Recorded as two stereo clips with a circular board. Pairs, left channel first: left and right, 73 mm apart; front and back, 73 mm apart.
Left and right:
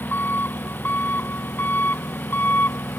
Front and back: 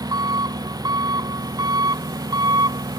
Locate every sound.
0.0 s an engine running: 155° left